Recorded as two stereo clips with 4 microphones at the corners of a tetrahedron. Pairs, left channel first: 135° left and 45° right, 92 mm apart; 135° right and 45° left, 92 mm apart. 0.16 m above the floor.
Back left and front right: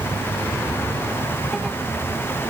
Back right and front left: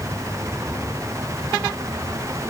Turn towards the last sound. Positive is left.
No sound to turn to.